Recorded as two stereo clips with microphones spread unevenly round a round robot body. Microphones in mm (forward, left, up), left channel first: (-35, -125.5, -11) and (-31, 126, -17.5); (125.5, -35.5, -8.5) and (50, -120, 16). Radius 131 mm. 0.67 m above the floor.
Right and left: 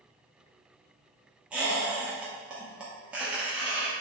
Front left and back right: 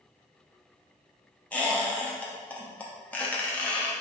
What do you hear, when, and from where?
1.5 s a squeak: 10° left, 0.6 m